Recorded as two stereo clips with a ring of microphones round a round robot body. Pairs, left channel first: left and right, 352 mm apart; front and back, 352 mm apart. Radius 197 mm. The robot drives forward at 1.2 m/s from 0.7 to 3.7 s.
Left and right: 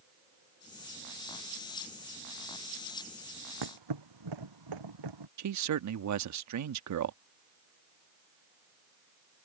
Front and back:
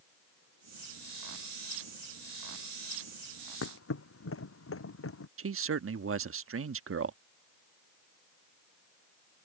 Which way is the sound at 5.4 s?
130° right.